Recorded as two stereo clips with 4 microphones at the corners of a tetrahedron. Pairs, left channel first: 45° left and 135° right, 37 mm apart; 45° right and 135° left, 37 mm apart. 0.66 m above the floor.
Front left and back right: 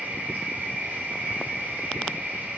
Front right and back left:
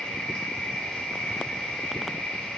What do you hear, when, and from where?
0.0 s an insect: 120° right, 1.5 m